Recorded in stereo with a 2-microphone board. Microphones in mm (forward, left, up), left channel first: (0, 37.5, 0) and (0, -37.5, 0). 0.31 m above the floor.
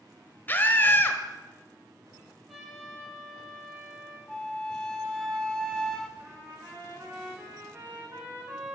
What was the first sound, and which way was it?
A scream, 25° left (ahead or behind).